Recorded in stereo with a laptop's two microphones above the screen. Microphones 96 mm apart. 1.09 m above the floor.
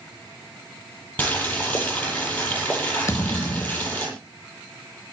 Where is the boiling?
15° left (ahead or behind), 10 m.